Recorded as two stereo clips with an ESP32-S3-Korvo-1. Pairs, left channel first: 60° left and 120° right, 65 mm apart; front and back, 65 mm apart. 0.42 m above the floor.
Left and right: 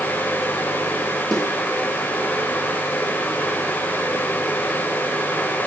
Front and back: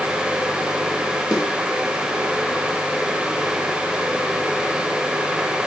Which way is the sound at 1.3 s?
15° right.